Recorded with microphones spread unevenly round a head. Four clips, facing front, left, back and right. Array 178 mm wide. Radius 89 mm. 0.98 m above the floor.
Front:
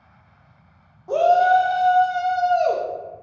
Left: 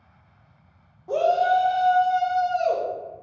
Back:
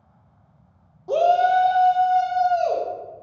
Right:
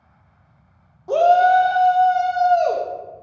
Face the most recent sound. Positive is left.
turn(degrees=-65)